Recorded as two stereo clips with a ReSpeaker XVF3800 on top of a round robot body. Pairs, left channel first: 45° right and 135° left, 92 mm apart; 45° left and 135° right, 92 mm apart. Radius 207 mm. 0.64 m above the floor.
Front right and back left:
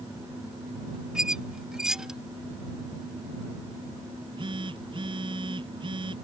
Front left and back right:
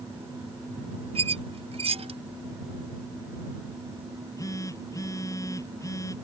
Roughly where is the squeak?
Behind right.